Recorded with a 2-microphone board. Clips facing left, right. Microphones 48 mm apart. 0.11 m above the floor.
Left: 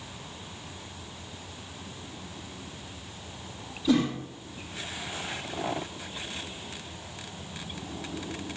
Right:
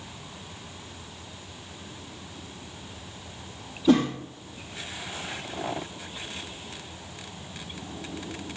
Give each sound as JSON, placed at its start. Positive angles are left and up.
{"t": 3.9, "sound": "a whoosh", "side_deg": -50, "distance_m": 3.0}